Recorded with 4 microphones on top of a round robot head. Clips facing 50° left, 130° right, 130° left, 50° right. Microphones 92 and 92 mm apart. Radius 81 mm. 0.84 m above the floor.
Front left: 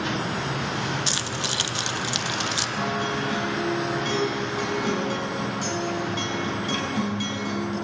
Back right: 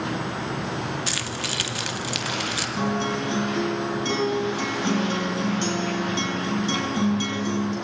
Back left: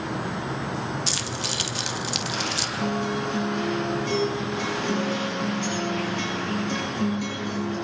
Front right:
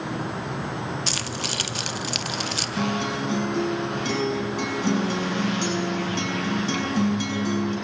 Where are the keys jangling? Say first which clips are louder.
Front left 1 dB, even; 15° right, 1.1 m.